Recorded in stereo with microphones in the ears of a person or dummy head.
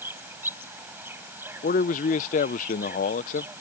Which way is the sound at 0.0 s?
10° right (ahead or behind).